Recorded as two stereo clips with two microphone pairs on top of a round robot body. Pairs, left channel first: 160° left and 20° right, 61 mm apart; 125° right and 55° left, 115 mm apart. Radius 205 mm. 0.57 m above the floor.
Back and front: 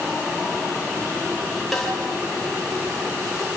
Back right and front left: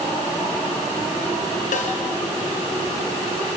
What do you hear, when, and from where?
1.7 s a snare drum: 115° right, 4 m